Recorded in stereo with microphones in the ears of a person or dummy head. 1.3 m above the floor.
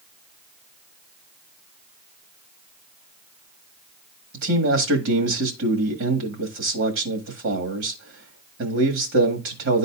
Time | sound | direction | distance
4.3 | a man speaking | 80° right | 1.7 m